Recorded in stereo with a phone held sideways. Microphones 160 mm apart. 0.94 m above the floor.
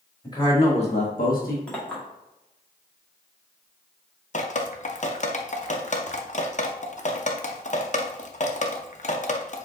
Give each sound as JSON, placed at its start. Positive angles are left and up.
{"t": 0.2, "sound": "a man speaking", "side_deg": 25, "distance_m": 2.0}
{"t": 1.7, "sound": "a clink", "side_deg": 10, "distance_m": 1.4}
{"t": 4.3, "sound": "dripping", "side_deg": 50, "distance_m": 0.5}